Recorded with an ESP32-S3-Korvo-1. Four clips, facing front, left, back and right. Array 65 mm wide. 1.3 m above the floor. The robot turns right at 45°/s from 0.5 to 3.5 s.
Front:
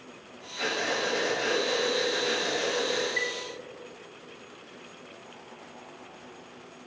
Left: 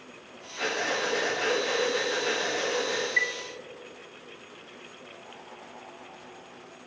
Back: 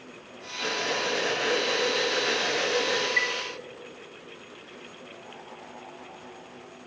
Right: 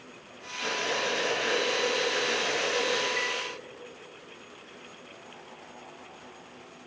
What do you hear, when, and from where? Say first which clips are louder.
0.6 s breathing: left 2 dB, even; 65° left, 4 m; by 3.1 s 175° left, 4 m
3.2 s a chime: left 4 dB, back 4 dB; 130° left, 0.5 m; by 3.4 s 140° left, 0.5 m